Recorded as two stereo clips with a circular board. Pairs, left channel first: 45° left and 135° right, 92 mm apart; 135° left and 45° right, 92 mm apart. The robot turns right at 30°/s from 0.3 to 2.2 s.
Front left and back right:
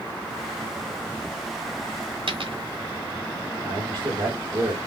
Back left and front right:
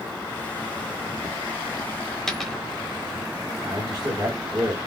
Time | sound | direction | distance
2.3 | a dropped coin | 140° right | 1.0 m
3.6 | a man speaking | 100° right | 2.5 m